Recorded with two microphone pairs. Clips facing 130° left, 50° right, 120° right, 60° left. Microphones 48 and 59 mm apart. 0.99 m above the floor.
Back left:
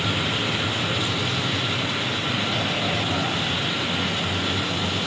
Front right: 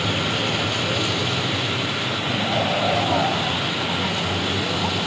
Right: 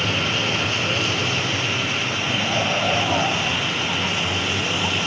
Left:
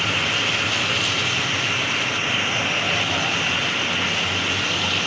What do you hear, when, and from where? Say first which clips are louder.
0.0 s a vehicle: front right 2 dB, even; 70° right; by 5.1 s 50° right